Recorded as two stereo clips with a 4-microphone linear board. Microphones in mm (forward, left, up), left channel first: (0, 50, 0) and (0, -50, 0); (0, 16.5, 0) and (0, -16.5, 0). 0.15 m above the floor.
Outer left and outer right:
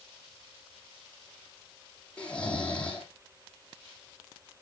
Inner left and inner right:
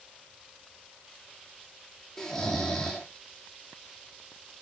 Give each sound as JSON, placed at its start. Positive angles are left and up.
{"t": 2.2, "sound": "snoring", "side_deg": 10, "distance_m": 2.0}